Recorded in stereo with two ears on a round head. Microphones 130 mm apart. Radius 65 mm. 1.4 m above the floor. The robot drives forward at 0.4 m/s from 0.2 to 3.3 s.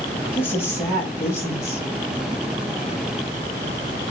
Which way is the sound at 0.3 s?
15° left (ahead or behind).